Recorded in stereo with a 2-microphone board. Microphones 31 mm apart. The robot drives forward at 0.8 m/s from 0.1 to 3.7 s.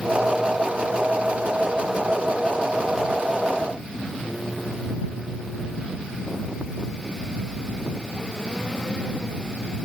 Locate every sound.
Only background noise.